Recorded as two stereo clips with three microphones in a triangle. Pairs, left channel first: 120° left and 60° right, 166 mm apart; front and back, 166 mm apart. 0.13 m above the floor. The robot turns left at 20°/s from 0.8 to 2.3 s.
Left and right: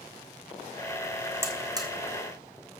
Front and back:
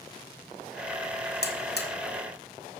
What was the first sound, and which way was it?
A buzzer, 15° left.